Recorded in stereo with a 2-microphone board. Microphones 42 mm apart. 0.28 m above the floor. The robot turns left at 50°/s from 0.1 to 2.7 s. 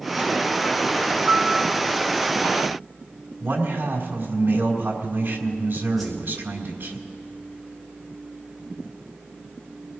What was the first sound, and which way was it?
A piano, 40° right (ahead or behind).